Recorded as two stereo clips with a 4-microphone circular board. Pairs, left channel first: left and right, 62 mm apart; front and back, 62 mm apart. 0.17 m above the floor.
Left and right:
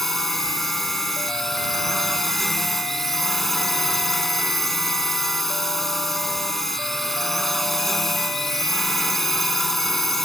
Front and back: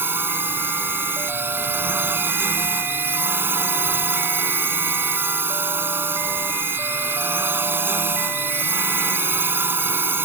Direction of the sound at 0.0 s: 175° left.